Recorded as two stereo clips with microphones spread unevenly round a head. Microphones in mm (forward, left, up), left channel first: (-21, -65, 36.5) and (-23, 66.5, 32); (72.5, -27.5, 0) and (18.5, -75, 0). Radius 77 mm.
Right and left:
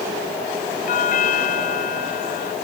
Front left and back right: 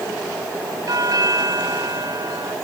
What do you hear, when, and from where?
0.9 s a doorbell: 110° right